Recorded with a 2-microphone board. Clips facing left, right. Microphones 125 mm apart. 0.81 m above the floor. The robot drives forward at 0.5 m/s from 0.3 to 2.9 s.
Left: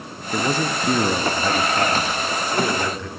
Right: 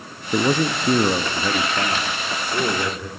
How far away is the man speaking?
About 0.7 m.